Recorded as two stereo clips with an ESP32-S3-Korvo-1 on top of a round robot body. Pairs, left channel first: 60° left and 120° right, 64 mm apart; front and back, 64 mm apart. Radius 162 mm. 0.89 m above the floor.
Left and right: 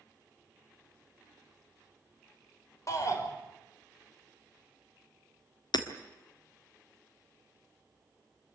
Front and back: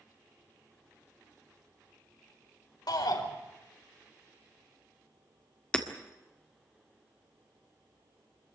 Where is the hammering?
80° left, 1.7 m.